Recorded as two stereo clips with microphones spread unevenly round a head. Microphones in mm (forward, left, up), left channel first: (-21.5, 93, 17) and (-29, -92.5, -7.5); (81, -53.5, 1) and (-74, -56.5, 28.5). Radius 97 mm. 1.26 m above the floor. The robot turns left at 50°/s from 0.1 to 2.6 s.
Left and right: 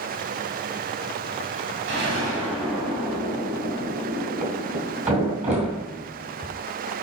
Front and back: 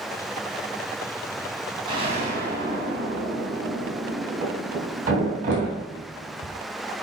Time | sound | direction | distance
1.9 | an explosion | 120° right | 2.5 m
4.4 | a thud | 150° right | 3 m